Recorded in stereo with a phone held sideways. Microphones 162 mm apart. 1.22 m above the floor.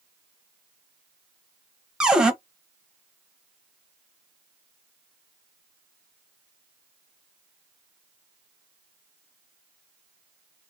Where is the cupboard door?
5° right (ahead or behind), 0.7 m.